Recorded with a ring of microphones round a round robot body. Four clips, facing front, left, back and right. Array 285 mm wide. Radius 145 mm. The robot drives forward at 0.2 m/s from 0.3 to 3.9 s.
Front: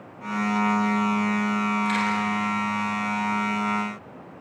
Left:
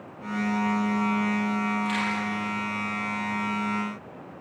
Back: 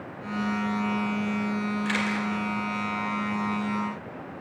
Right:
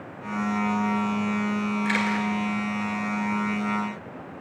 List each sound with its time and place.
1.9 s a camera shutter: 115° right, 2.5 m; by 2.3 s 120° right, 2.5 m